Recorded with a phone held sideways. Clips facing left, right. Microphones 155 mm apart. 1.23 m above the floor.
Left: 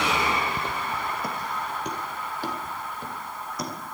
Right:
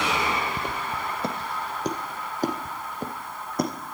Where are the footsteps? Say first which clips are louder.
Even; 15° right (ahead or behind), 1.5 m; by 3.7 s 55° right (ahead or behind), 3 m.